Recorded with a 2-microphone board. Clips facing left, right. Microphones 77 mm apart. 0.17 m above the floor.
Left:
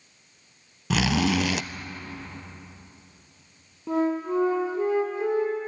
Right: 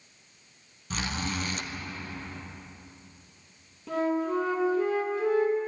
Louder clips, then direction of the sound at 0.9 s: Left 10 dB; 80° left.